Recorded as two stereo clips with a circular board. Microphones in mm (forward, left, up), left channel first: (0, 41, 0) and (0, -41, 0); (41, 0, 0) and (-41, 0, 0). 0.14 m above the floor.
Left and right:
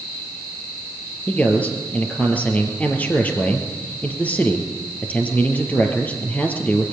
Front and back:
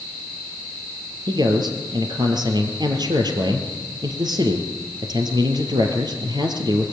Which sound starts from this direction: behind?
A man speaking, at 1.3 s.